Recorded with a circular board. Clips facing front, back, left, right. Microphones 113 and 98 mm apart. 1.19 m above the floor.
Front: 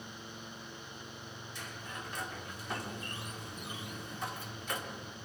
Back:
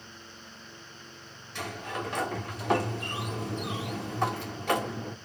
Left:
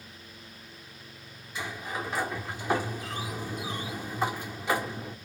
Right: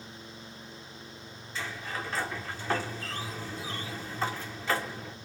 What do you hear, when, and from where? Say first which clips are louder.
1.6 s a sliding door: back 12 dB, left 2 dB; 165° left, 1.4 m